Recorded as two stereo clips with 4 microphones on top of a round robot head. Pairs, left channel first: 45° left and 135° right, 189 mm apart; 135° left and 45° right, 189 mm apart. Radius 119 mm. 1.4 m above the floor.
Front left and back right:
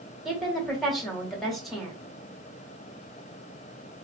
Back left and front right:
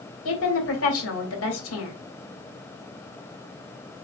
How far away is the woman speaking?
About 1.9 m.